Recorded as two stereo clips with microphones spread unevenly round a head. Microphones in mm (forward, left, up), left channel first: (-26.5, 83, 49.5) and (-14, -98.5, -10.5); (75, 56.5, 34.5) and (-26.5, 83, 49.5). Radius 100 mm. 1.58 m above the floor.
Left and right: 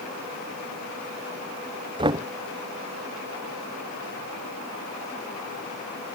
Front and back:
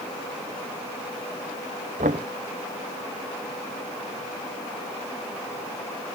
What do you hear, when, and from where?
2.0 s knocking: 155° right